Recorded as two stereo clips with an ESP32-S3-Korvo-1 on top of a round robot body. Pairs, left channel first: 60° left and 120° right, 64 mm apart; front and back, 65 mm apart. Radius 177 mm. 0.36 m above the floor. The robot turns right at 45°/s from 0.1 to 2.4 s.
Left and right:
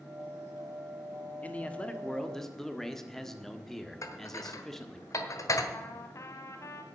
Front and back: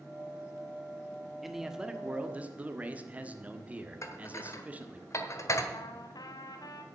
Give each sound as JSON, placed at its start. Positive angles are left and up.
{"t": 1.4, "sound": "a man speaking", "azimuth_deg": 95, "distance_m": 1.6}
{"t": 4.0, "sound": "dishes clattering", "azimuth_deg": 35, "distance_m": 1.4}
{"t": 5.7, "sound": "a trumpet", "azimuth_deg": 15, "distance_m": 1.1}